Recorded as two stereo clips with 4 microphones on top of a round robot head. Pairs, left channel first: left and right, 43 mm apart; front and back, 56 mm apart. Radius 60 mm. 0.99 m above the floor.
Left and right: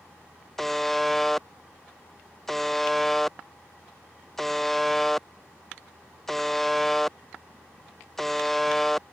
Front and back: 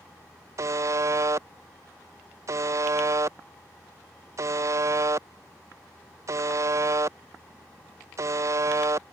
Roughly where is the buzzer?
Behind.